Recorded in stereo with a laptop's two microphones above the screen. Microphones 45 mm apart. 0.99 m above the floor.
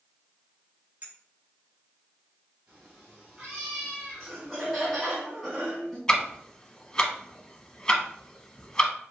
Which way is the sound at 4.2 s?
5° left (ahead or behind).